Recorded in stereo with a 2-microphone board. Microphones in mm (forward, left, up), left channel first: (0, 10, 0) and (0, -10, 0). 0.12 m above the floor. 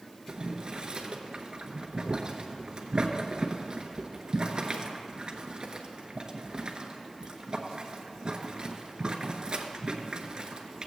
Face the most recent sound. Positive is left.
turn(degrees=-45)  # may be behind; listen again after turning